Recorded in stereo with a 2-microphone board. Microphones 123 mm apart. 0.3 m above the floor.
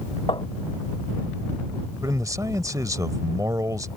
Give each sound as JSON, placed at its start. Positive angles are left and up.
{"t": 0.3, "sound": "tapping", "side_deg": 40}
{"t": 2.0, "sound": "a man speaking", "side_deg": -25}